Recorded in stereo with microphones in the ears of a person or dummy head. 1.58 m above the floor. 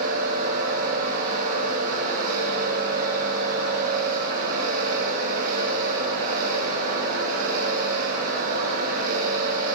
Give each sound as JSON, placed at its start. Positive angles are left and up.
{"t": 0.0, "sound": "a machine running", "side_deg": -50, "distance_m": 2.5}